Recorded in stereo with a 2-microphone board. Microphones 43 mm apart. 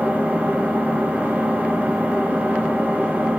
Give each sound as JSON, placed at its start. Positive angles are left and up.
{"t": 0.0, "sound": "an engine running", "side_deg": -35, "distance_m": 1.1}